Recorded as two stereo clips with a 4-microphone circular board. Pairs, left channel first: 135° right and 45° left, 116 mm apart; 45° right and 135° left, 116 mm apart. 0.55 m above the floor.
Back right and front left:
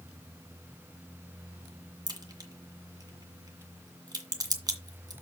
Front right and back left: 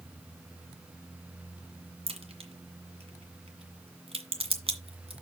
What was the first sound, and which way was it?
A crack, 100° left.